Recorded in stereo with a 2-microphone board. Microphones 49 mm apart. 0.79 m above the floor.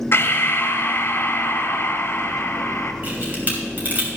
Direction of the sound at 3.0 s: 35° right (ahead or behind).